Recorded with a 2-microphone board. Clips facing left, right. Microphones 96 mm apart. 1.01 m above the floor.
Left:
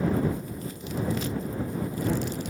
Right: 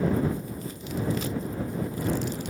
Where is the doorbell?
I don't hear a doorbell.